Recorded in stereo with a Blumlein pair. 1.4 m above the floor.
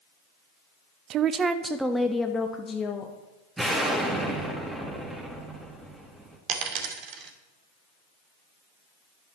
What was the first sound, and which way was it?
A woman speaking, 35° right.